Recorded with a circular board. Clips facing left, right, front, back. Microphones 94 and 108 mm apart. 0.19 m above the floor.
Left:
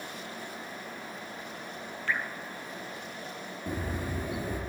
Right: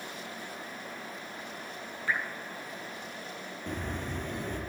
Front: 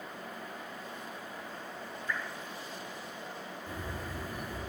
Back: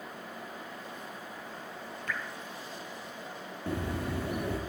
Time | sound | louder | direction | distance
2.1 | dripping | even, even | 165° right | 2.0 m
3.7 | a bird | left 2 dB, back 9 dB | 170° left | 2 m